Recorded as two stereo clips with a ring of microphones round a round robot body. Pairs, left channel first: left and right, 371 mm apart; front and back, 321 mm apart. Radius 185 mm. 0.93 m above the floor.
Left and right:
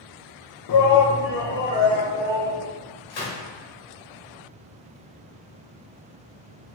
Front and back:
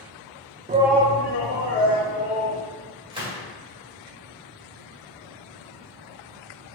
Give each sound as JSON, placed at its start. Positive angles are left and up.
{"t": 0.7, "sound": "a shout", "azimuth_deg": 120, "distance_m": 0.5}
{"t": 3.1, "sound": "a gunshot", "azimuth_deg": 105, "distance_m": 1.9}